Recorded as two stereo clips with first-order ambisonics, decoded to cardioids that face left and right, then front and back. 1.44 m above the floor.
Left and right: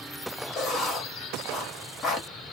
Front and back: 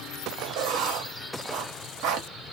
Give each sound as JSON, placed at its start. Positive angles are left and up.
{"t": 0.6, "sound": "writing", "azimuth_deg": 150, "distance_m": 1.6}